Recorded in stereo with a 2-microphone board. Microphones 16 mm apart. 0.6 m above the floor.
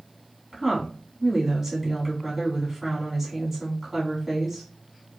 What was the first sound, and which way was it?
A woman speaking, 25° right (ahead or behind).